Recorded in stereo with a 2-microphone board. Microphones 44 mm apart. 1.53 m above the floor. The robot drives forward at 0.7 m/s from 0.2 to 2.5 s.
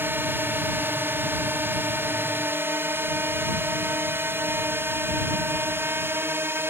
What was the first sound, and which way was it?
A drone, 50° right (ahead or behind).